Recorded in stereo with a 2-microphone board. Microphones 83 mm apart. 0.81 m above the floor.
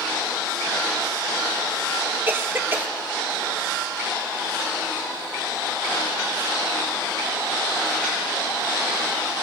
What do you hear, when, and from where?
2.3 s a cough: 25° right (ahead or behind), 2 m